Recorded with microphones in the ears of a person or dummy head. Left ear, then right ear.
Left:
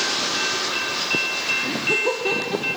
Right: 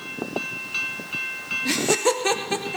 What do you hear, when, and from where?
1.6 s laughter: 65° right (ahead or behind), 1.0 m; by 2.8 s 50° right (ahead or behind), 1.3 m